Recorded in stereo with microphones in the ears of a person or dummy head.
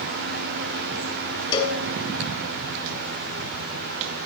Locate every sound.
1.5 s a cowbell: 40° left (ahead or behind), 1.4 m